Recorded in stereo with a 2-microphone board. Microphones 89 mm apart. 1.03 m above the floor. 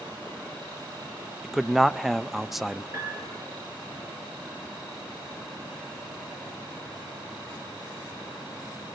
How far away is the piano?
About 6.5 m.